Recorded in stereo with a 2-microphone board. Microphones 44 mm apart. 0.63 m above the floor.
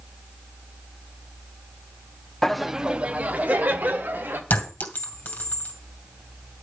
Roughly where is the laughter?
Centre.